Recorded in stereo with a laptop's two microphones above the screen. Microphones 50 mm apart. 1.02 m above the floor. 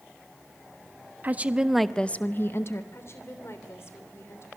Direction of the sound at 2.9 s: 60° left (ahead or behind).